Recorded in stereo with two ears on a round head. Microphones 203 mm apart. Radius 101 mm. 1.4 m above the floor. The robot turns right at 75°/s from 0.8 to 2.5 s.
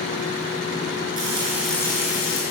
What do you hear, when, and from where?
1.2 s frying: 40° right, 8 m; by 2.4 s 55° left, 8 m